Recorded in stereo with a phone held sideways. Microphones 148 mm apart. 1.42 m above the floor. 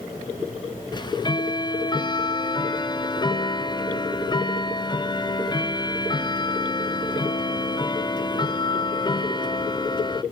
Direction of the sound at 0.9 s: 30° left (ahead or behind).